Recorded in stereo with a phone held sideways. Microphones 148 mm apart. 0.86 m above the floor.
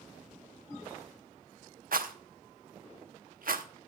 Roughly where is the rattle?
Right.